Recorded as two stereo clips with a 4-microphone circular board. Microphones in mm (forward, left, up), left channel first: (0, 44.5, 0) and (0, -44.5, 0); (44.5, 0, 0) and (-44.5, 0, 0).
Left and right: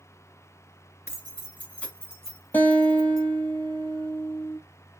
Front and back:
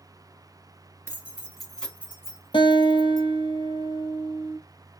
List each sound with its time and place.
1.1 s keys jangling: 135° left, 1.3 m; by 3.2 s 10° right, 1.8 m
2.5 s a guitar: 20° left, 0.7 m